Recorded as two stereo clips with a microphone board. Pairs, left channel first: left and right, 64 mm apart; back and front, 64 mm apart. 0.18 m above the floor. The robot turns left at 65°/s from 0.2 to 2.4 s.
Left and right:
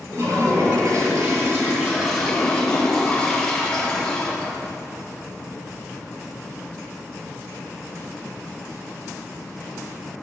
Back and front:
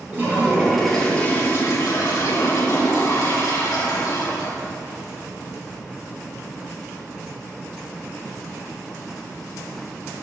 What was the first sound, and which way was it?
A toilet flushing, 50° right.